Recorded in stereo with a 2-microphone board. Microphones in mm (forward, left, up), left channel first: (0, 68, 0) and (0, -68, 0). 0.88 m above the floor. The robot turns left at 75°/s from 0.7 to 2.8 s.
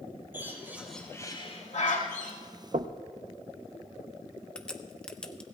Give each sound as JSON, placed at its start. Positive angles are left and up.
{"t": 0.3, "sound": "a bird", "side_deg": -15, "distance_m": 3.0}
{"t": 2.7, "sound": "knocking", "side_deg": -55, "distance_m": 0.5}
{"t": 4.5, "sound": "a crack", "side_deg": 5, "distance_m": 0.9}